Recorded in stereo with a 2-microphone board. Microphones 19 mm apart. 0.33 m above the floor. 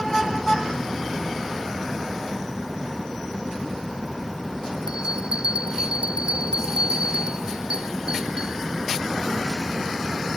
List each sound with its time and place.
4.9 s a bell: 55° right (ahead or behind)